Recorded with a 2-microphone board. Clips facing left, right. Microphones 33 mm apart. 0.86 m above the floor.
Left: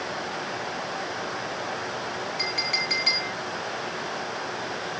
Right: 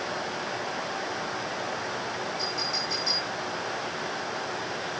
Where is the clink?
75° left (ahead or behind), 4 m.